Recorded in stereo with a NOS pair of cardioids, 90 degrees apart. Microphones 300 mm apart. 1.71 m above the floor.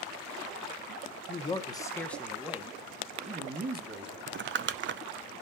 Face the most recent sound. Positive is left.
turn(degrees=-40)